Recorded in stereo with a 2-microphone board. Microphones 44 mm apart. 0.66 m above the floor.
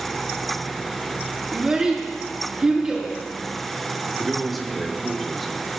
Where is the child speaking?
15° right (ahead or behind), 6 m.